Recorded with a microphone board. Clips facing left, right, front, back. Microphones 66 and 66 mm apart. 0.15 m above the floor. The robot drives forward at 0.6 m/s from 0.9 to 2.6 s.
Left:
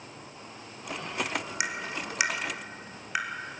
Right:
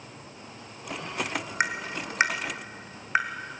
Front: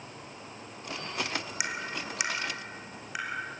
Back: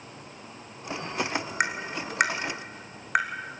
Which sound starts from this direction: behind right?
Tapping, at 1.6 s.